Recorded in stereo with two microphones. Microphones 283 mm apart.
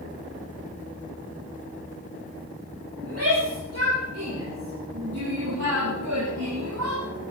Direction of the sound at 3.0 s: 55° right (ahead or behind).